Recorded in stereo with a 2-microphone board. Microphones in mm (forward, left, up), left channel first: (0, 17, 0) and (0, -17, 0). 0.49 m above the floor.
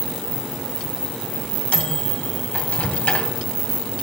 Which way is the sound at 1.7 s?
50° left (ahead or behind).